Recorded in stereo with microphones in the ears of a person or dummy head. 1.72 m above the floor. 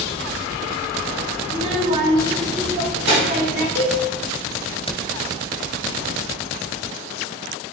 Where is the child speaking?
40° right (ahead or behind), 1.2 m; by 3.6 s 65° right (ahead or behind), 3 m.